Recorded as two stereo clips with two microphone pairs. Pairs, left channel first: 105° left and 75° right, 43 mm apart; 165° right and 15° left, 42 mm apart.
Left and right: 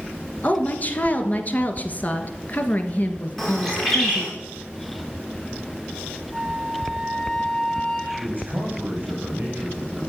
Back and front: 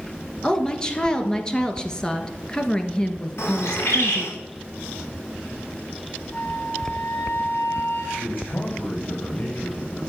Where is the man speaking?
125° right, 6.5 m.